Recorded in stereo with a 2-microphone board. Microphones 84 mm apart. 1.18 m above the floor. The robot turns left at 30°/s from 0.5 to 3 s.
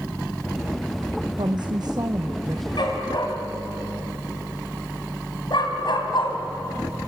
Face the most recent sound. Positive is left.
turn(degrees=70)  # may be behind; listen again after turning